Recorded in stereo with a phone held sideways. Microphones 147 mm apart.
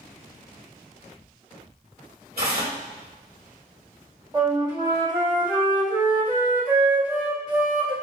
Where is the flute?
25° right (ahead or behind), 1.0 m.